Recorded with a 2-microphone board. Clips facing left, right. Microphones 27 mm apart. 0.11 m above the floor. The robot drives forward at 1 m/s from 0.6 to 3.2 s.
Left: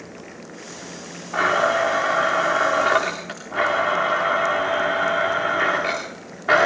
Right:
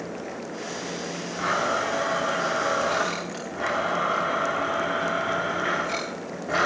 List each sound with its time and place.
1.3 s a blender: 80° left, 10 m; by 6.7 s 70° left (ahead or behind), 10 m